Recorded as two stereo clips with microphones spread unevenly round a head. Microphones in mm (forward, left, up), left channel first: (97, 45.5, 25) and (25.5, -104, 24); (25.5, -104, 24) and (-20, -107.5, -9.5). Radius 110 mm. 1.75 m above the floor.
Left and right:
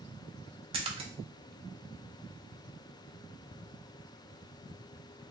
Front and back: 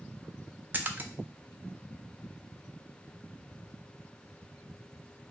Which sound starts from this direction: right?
A splash, at 0.7 s.